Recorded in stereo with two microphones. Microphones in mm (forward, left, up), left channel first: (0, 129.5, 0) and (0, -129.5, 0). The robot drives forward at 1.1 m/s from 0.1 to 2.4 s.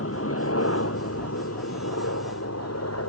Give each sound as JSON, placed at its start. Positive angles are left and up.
{"t": 0.0, "sound": "a helicopter", "side_deg": 60}